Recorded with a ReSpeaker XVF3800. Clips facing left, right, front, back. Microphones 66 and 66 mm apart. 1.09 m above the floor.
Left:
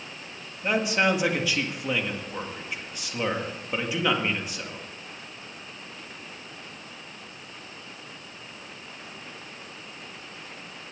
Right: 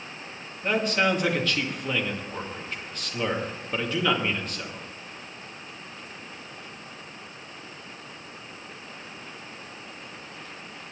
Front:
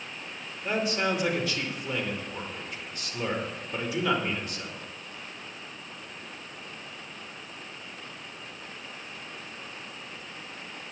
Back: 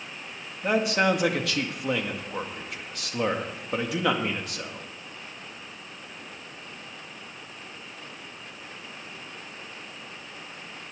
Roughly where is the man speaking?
Behind.